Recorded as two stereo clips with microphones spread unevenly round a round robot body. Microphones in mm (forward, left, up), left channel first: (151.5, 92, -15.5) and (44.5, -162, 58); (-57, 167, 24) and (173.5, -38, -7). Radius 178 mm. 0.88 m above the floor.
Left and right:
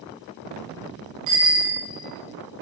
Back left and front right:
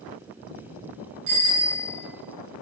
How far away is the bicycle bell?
About 7 m.